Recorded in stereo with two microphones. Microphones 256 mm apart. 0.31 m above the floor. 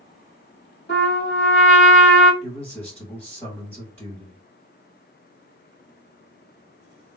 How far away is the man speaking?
About 2 m.